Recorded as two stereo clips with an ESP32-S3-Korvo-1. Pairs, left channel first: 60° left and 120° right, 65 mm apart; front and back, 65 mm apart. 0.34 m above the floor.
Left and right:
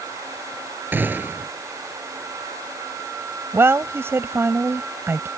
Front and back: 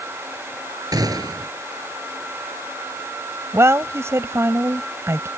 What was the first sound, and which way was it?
A gunshot, straight behind.